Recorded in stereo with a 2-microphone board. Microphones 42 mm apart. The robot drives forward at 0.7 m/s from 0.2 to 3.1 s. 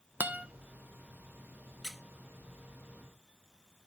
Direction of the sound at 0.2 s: 40° right (ahead or behind).